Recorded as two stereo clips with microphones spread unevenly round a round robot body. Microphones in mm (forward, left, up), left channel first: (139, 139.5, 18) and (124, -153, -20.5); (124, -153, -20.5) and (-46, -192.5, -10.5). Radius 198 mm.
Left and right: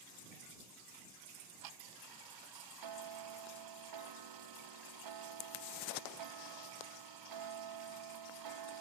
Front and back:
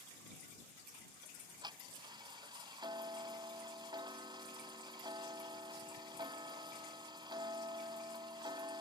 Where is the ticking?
100° right.